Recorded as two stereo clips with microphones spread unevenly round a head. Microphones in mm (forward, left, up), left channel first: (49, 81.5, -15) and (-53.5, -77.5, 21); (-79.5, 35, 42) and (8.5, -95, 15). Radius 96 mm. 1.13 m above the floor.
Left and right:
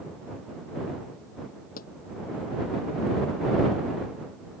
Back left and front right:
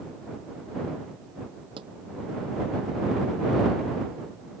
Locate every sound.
1.8 s a pop: 10° left